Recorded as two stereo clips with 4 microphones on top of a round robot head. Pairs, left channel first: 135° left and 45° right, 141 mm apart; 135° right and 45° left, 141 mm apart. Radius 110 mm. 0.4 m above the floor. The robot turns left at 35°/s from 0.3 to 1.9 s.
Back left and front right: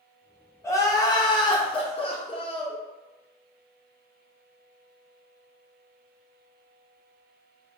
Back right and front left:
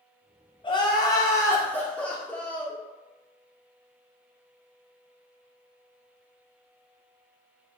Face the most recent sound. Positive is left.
turn(degrees=150)